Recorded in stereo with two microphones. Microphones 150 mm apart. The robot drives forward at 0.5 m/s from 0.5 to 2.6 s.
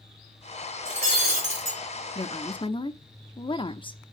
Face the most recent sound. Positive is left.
turn(degrees=35)  # may be behind; listen again after turning